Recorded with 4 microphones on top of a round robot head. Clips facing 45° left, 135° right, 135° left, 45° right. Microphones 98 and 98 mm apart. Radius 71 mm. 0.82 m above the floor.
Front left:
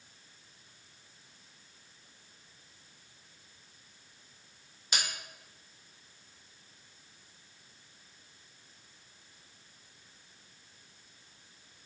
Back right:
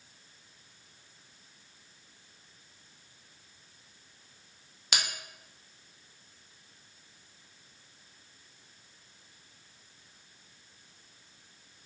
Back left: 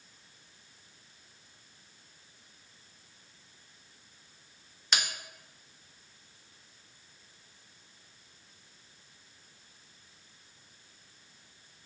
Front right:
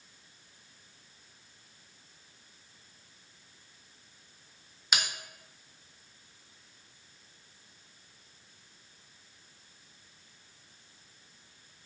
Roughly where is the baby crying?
I don't hear a baby crying.